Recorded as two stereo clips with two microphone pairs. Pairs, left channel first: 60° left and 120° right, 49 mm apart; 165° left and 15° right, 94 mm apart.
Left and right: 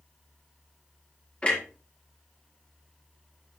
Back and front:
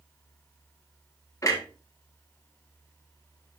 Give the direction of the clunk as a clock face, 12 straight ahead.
8 o'clock.